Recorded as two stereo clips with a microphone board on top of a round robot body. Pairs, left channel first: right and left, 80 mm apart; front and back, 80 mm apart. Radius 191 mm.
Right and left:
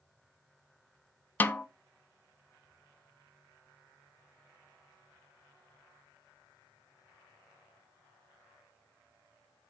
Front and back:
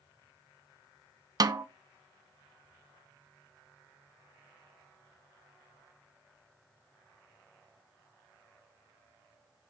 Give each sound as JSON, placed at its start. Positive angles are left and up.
{"t": 1.4, "sound": "a snare drum", "azimuth_deg": -155, "distance_m": 0.5}